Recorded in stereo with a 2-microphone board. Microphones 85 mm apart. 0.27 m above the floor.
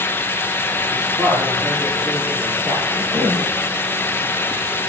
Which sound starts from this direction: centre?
A man speaking, at 0.9 s.